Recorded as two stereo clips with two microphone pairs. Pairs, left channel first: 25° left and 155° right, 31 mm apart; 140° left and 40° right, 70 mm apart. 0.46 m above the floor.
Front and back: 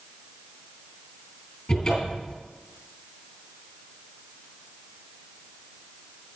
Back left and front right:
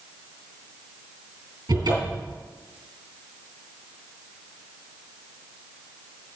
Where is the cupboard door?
50° right, 3.5 m.